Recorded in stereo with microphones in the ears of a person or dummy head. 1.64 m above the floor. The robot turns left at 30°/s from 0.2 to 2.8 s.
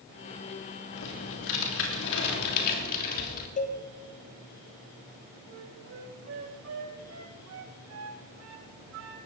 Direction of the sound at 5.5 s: 80° right.